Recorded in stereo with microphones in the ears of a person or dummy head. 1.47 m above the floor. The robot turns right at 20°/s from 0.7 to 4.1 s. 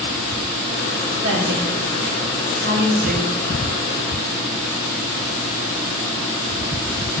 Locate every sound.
1.2 s a woman speaking: 80° right, 1.0 m; by 3.3 s 45° right (ahead or behind), 1.0 m